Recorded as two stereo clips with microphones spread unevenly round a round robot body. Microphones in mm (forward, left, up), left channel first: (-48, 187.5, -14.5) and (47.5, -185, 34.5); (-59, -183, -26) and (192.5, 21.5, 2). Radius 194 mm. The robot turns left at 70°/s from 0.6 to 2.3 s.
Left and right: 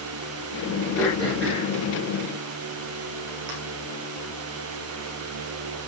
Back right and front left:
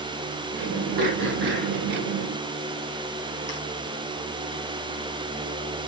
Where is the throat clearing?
20° left, 6.5 m; by 3.5 s 70° right, 6.5 m.